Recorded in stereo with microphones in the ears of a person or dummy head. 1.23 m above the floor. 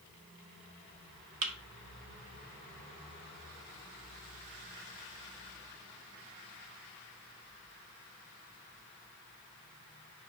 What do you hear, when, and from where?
1.4 s a thud: 40° right (ahead or behind), 0.8 m